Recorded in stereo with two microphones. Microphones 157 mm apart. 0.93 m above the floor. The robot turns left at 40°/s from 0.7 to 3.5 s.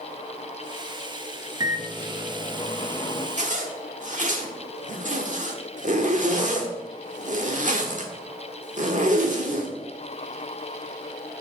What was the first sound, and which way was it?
A microwave, 145° right.